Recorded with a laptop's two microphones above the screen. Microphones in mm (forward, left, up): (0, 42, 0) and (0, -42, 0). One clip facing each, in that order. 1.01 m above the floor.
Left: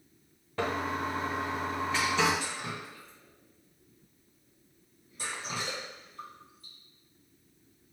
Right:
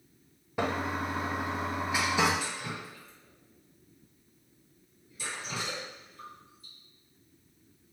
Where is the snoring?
No snoring in this recording.